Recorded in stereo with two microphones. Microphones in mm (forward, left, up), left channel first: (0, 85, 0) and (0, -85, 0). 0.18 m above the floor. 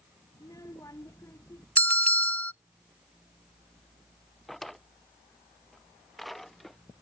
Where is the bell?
10° left (ahead or behind).